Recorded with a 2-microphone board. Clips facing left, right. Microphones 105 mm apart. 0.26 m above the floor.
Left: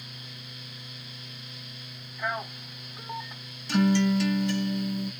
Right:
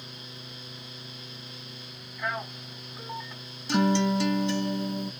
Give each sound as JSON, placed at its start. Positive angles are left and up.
{"t": 2.2, "sound": "a man speaking", "side_deg": 10, "distance_m": 2.5}
{"t": 3.7, "sound": "a guitar", "side_deg": -20, "distance_m": 1.3}